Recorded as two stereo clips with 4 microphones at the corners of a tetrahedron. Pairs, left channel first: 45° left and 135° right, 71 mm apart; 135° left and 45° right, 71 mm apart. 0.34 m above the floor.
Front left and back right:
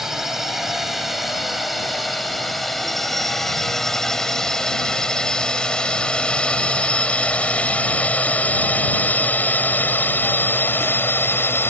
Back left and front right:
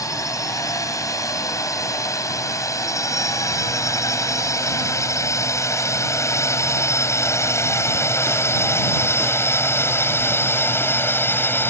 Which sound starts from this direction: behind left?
A drone, at 0.0 s.